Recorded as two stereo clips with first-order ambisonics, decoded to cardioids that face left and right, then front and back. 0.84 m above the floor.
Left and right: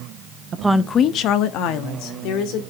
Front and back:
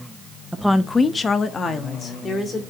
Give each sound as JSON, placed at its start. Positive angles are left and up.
{"t": 0.5, "sound": "a woman speaking", "azimuth_deg": -100, "distance_m": 0.6}